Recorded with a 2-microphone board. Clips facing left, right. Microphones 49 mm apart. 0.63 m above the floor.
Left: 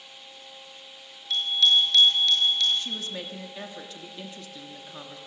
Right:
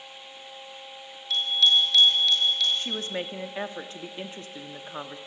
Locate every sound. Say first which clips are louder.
1.3 s a bicycle bell: even; centre (ahead or behind), 6 m; by 2.7 s 5° right (ahead or behind), 6.5 m
2.8 s a woman speaking: right 3 dB; 35° right (ahead or behind), 0.9 m